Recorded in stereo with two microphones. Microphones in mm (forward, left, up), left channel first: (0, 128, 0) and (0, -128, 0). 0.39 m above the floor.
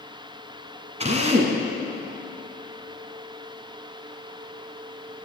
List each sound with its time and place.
1.0 s a drill: 25° right (ahead or behind), 1.5 m